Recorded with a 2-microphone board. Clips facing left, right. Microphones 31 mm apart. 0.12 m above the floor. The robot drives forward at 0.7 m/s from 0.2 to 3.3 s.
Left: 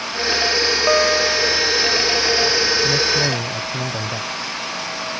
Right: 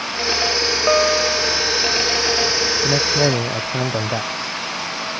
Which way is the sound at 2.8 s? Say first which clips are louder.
Right 1 dB; 30° right (ahead or behind).